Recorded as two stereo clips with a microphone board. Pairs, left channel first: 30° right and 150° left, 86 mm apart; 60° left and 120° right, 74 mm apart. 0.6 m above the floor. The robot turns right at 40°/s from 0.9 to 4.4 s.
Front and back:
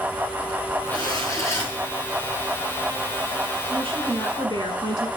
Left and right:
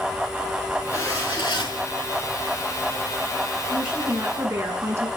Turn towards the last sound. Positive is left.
turn(degrees=170)